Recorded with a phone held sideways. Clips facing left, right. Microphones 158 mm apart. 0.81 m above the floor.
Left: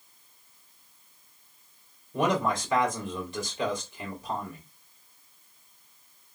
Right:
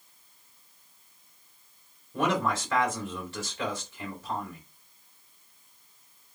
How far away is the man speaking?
About 2 m.